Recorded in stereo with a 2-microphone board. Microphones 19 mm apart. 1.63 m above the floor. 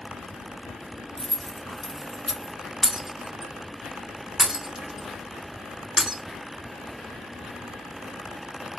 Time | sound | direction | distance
1.2 | keys jangling | 25° left (ahead or behind) | 0.6 m
2.8 | breaking glass | 20° right (ahead or behind) | 1.7 m